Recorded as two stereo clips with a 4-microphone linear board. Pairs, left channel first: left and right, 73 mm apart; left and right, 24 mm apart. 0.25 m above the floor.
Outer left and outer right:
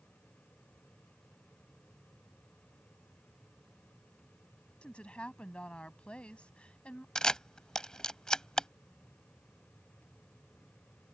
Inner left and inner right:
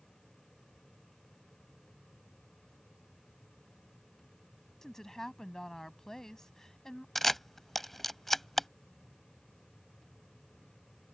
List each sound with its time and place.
4.8 s a woman speaking: 15° left (ahead or behind)
7.2 s a camera shutter: 10° left (ahead or behind)